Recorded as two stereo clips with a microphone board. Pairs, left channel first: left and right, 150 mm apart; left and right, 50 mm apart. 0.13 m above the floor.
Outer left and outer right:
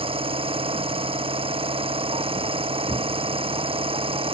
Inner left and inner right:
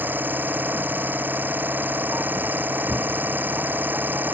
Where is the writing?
I don't hear writing.